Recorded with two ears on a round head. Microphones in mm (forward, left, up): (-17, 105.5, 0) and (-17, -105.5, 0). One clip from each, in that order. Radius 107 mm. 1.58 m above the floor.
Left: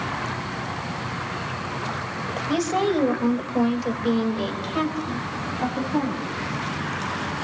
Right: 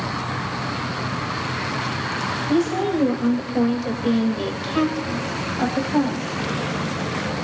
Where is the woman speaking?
50° left (ahead or behind), 2.5 m; by 6.2 s 40° right (ahead or behind), 3.5 m.